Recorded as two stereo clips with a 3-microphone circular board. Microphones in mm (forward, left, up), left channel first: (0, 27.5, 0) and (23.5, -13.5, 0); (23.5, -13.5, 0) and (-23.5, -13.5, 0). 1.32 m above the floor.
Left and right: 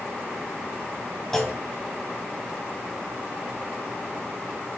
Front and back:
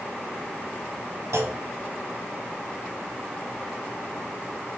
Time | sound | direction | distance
1.3 | a clunk | 160° right | 0.5 m